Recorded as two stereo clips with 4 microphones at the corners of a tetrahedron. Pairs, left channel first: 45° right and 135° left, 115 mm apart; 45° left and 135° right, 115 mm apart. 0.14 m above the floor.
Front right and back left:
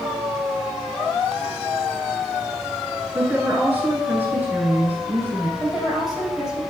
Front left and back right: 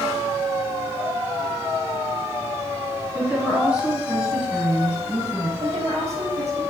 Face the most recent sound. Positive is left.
turn(degrees=-140)